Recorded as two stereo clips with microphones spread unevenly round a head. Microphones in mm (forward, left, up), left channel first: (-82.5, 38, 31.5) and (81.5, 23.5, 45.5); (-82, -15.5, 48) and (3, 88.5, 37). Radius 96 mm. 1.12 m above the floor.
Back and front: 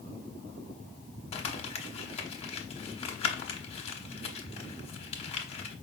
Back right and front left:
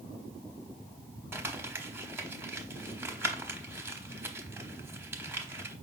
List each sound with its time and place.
1.3 s crumpling: 125° left, 0.8 m